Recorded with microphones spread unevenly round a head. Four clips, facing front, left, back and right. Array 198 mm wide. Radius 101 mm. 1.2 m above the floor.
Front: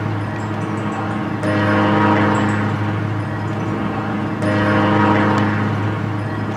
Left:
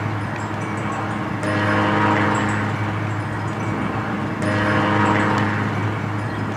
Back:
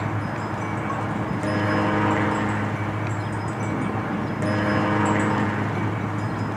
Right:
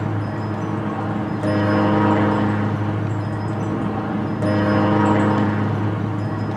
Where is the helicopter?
30° right.